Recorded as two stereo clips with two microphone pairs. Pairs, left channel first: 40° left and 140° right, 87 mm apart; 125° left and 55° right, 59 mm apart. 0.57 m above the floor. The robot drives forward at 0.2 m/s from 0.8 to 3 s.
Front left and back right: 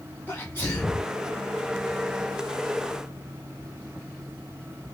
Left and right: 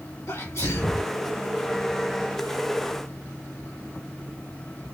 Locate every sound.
0.3 s a sneeze: 100° left, 1.8 m; by 1.1 s 105° left, 1.8 m